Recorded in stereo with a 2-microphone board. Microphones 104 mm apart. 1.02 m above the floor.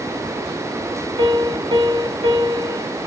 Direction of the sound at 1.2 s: 60° right (ahead or behind).